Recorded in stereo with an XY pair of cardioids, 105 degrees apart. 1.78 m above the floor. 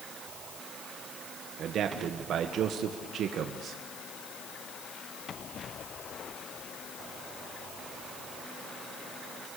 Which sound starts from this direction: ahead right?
A man speaking, at 1.6 s.